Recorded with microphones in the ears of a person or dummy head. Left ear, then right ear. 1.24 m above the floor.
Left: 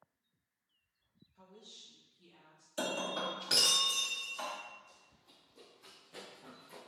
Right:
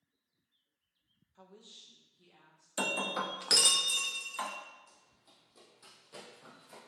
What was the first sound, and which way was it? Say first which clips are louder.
A woman speaking: even; 50° right (ahead or behind).